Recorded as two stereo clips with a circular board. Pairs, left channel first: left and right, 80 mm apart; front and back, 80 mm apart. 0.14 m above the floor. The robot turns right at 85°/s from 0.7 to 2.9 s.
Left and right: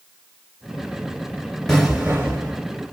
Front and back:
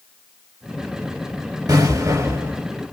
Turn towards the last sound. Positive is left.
turn(degrees=-80)